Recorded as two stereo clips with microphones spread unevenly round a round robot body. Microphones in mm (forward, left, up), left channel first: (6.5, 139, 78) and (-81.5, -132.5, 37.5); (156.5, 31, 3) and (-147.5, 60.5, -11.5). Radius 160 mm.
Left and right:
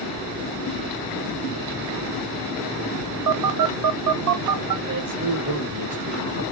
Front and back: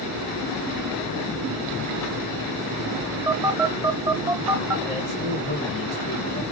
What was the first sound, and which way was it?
A phone buzzing, 105° right.